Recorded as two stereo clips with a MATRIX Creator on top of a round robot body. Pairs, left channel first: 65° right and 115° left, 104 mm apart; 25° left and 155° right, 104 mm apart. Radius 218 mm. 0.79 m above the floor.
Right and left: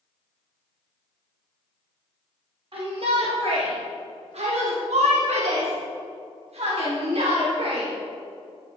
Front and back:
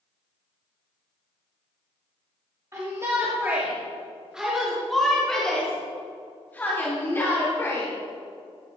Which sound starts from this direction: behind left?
A shout, at 2.7 s.